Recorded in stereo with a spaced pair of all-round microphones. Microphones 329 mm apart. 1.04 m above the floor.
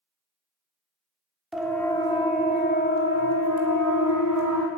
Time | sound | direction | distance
1.5 | a siren | centre (ahead or behind) | 3.5 m